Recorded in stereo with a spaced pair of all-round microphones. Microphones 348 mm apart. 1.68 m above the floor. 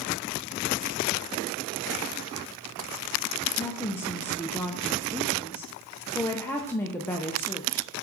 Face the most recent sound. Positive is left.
turn(degrees=5)  # may be behind; listen again after turning